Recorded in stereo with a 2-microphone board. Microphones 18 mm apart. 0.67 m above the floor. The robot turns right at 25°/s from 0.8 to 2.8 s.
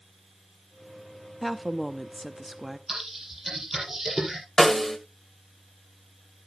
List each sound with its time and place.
1.4 s a woman speaking: 170° left, 0.7 m; by 2.8 s 155° right, 0.7 m
2.9 s typing on a keyboard: 20° right (ahead or behind), 6 m
4.6 s a snare drum: 25° left (ahead or behind), 1.7 m